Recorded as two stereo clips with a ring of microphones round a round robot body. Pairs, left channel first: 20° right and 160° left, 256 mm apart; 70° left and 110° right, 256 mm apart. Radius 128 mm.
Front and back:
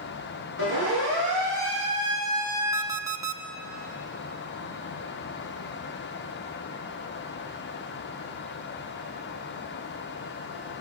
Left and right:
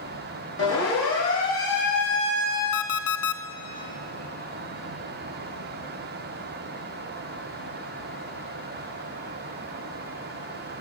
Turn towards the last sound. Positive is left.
turn(degrees=80)